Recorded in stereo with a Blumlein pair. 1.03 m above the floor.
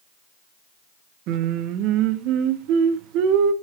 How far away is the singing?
About 0.7 m.